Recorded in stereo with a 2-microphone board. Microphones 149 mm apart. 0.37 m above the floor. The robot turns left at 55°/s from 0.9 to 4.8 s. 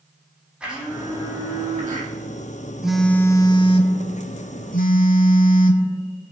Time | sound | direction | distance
0.6 | a blender | 5° right | 4.5 m
2.8 | a phone buzzing | 175° right | 1.0 m